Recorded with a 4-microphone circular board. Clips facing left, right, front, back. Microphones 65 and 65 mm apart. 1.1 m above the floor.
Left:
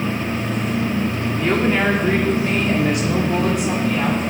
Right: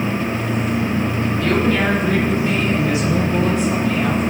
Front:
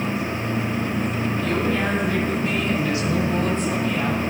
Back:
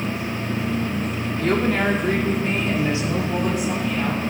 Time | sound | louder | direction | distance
1.4 | a woman speaking | even, back 4 dB | 160° left | 3 m